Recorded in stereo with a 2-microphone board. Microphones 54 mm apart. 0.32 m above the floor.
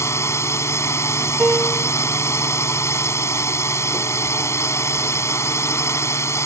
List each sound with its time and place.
0.0 s a drone: 60° left (ahead or behind)
1.4 s a piano: 25° right (ahead or behind)